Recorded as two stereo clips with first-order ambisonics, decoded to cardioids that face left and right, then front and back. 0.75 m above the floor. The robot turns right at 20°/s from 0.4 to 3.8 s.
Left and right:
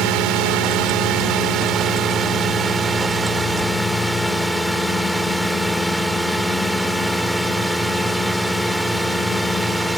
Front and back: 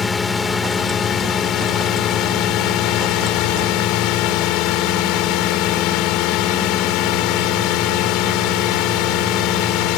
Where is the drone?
75° right; by 10.0 s 5° right.